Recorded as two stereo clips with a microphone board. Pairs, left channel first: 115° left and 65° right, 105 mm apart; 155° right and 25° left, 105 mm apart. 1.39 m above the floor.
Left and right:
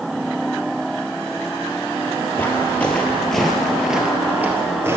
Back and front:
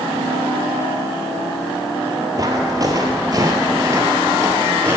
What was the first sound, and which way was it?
Footsteps, 55° left.